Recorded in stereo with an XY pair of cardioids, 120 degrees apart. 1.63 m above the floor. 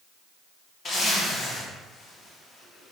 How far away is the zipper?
About 1.3 m.